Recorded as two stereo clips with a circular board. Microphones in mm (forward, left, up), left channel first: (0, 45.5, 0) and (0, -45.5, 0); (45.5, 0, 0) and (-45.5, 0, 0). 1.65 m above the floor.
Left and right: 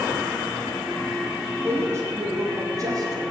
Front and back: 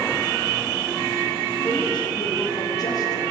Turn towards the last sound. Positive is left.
turn(degrees=-45)